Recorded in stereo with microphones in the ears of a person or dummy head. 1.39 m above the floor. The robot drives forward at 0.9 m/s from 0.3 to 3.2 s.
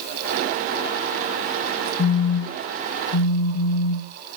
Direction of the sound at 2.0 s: 60° left (ahead or behind).